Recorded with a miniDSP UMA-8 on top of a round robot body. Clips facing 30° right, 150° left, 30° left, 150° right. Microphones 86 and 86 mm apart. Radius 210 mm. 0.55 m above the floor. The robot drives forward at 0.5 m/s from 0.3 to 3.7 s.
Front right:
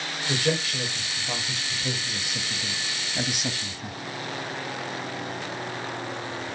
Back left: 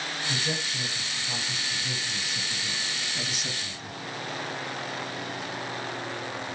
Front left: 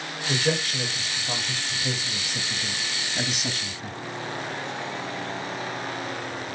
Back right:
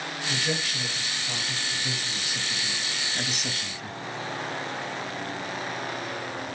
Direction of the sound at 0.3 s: 20° right.